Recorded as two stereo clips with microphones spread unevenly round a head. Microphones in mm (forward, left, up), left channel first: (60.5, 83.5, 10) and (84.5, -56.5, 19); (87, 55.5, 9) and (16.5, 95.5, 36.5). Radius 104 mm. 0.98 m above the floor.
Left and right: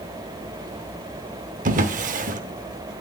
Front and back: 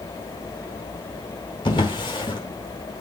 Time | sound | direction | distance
1.6 | a drawer | 100° right | 0.9 m